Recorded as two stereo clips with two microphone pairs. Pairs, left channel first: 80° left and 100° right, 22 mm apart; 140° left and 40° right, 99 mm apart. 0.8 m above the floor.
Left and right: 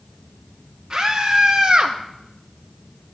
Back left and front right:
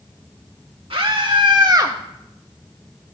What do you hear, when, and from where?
0.9 s a scream: 40° right, 1.3 m; by 2.0 s 90° right, 0.7 m